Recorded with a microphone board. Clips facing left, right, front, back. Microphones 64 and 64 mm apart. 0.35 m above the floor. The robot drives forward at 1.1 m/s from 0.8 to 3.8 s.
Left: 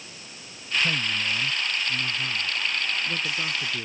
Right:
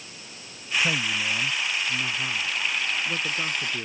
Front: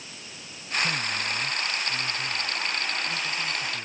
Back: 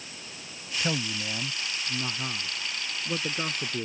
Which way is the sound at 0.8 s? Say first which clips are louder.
Right 1 dB, front 1 dB; 150° right.